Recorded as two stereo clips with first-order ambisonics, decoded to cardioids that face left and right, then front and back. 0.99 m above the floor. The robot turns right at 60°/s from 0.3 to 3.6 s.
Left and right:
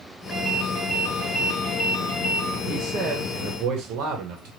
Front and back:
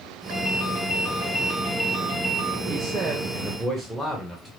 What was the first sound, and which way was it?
A ringtone, 10° left.